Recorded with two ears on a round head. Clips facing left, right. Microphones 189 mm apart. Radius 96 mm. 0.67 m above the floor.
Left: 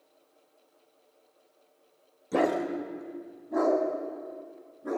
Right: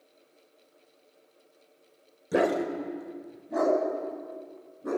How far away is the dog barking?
About 1.0 m.